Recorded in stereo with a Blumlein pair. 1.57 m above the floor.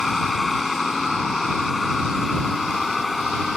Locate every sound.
0.0 s a vehicle: 10° left